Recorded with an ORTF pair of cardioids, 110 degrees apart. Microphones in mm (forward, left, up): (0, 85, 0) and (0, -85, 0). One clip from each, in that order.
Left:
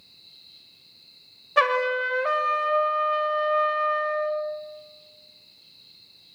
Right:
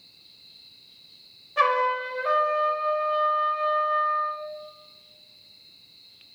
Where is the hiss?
I don't hear a hiss.